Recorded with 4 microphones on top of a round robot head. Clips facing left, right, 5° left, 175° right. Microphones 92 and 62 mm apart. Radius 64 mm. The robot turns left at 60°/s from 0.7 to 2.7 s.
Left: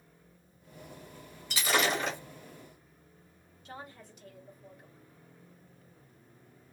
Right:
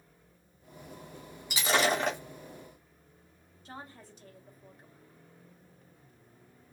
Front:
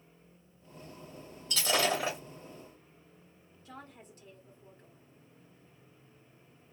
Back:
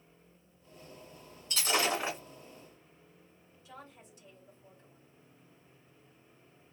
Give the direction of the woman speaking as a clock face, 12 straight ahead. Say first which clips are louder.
Even, front 2 dB; 1 o'clock.